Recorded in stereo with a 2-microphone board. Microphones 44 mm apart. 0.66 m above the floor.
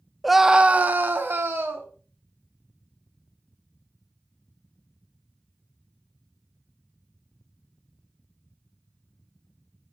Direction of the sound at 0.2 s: Centre (ahead or behind).